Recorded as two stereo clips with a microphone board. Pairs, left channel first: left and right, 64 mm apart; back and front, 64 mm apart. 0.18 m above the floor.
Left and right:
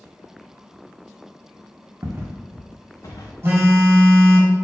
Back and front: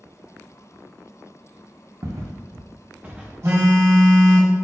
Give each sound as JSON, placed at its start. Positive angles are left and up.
{"t": 2.0, "sound": "footsteps", "azimuth_deg": -35, "distance_m": 1.0}
{"t": 3.4, "sound": "a phone buzzing", "azimuth_deg": -40, "distance_m": 1.8}